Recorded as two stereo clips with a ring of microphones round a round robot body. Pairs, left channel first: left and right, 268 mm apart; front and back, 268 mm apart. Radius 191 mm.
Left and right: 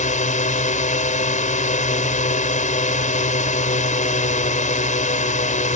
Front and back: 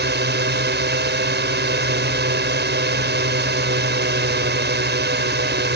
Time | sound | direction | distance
0.0 | a drone | 145° left | ?